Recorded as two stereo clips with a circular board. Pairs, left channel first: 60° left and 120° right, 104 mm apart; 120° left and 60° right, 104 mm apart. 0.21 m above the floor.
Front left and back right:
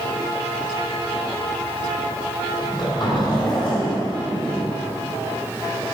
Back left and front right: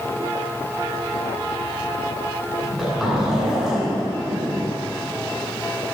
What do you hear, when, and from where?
2.6 s a zipper: 25° left, 2.5 m